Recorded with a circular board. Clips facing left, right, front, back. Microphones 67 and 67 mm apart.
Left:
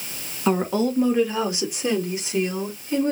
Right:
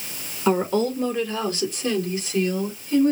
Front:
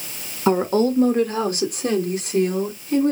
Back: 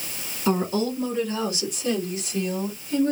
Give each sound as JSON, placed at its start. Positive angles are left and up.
{"t": 0.5, "sound": "a woman speaking", "azimuth_deg": 0, "distance_m": 1.2}